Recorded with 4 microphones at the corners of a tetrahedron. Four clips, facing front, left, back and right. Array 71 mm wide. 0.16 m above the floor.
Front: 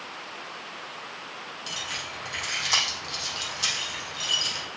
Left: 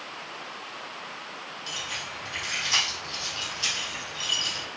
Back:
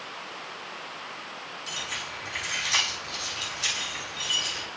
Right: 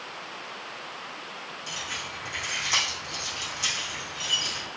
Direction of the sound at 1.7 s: 15° right.